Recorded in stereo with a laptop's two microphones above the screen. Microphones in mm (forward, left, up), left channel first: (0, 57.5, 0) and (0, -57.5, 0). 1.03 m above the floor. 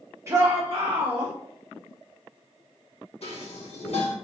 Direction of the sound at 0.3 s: 25° right (ahead or behind).